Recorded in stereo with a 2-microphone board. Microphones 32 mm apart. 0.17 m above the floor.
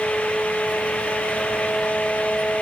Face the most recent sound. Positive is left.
No sound to turn to.